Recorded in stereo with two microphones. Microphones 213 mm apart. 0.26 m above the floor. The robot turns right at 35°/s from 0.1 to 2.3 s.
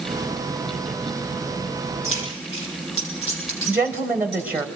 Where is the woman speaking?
10° right (ahead or behind), 0.9 m.